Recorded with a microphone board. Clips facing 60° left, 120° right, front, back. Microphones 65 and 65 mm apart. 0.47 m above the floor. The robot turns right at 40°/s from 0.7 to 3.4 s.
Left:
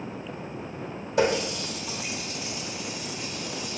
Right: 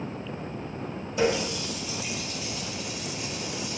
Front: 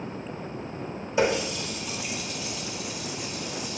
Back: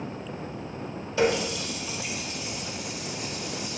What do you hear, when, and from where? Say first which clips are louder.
1.2 s a running tap: left 2 dB, even; 70° left, 1.0 m; by 3.8 s 160° left, 1.0 m